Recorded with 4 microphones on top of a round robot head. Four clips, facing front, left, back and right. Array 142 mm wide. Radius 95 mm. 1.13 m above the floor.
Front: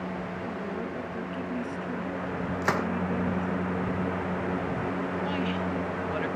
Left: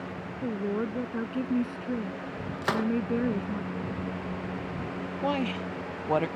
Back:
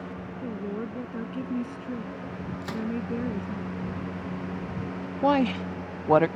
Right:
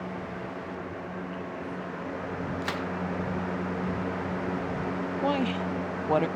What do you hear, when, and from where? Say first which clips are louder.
0.4 s a woman speaking: left 6 dB, back 4 dB; 105° left
2.6 s a gunshot: left 4 dB, front 5 dB; 30° left
5.2 s a woman speaking: right 1 dB, back 6 dB; 175° right